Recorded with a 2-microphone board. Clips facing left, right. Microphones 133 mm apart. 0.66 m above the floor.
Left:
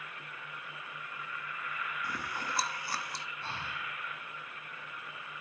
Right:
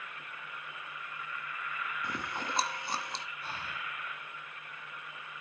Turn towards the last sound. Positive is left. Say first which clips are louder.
# left 1 dB
turn(degrees=30)  # may be behind; listen again after turning